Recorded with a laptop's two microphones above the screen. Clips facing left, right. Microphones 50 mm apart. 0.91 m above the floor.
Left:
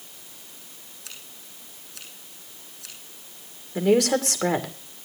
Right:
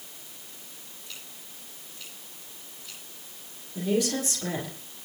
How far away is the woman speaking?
About 2.5 m.